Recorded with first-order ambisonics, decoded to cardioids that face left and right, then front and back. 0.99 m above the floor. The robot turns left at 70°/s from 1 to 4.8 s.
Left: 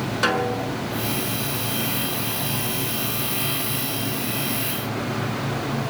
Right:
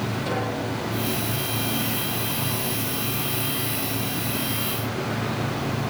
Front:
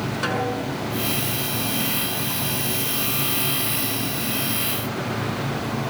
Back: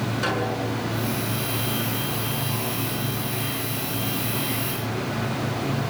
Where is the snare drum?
85° left, 6.5 m.